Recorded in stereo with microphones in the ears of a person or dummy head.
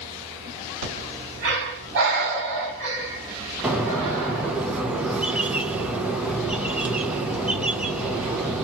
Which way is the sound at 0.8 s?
65° right (ahead or behind).